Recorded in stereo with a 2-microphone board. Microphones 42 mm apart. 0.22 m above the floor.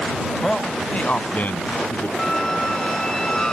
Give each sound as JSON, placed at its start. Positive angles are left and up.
{"t": 0.4, "sound": "a man speaking", "side_deg": 10}
{"t": 2.2, "sound": "a squeak", "side_deg": 20}